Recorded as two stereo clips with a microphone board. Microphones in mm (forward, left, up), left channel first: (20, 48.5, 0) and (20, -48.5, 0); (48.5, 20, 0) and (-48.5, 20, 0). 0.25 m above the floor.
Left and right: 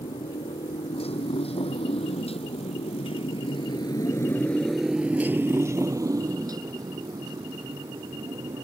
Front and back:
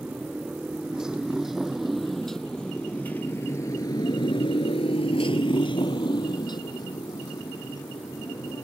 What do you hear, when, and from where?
0.0 s a motorcycle: 100° left; by 8.7 s 50° right